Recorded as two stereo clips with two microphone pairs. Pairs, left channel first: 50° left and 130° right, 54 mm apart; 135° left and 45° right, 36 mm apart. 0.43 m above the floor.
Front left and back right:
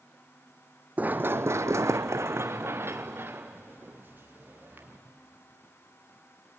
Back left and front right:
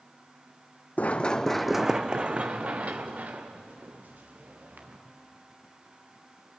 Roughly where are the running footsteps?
Behind.